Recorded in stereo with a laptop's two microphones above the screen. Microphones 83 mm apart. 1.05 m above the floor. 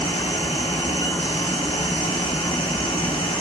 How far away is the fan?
About 0.8 m.